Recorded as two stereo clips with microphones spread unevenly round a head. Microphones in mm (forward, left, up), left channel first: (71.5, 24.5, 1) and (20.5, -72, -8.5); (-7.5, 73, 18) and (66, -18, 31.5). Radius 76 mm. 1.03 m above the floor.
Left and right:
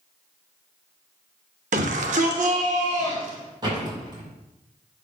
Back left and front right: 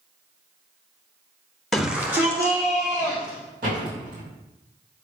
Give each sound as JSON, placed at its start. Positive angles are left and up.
{"t": 1.7, "sound": "a shout", "azimuth_deg": -145, "distance_m": 1.2}
{"t": 3.6, "sound": "a door slam", "azimuth_deg": -70, "distance_m": 4.5}